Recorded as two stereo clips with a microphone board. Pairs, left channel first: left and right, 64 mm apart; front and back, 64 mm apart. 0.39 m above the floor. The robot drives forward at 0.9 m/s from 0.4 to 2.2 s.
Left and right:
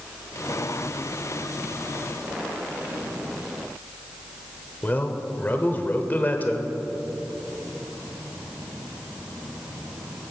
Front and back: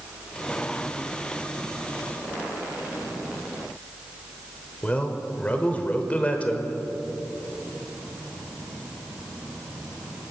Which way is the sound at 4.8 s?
55° left.